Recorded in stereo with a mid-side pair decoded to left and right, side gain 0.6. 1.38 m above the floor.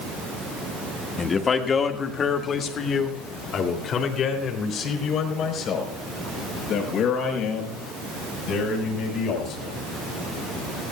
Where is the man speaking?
30° left, 1.8 m; by 9.8 s 60° left, 7 m.